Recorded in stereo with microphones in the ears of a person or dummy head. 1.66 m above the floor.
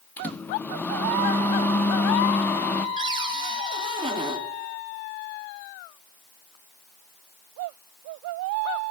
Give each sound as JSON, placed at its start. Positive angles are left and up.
{"t": 0.2, "sound": "a microwave", "side_deg": 10, "distance_m": 1.3}
{"t": 3.0, "sound": "a cupboard door", "side_deg": -25, "distance_m": 2.5}